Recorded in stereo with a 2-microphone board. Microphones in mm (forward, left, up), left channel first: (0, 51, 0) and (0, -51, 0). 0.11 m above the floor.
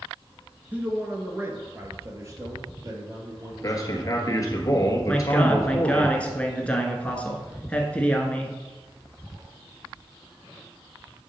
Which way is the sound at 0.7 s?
15° right (ahead or behind).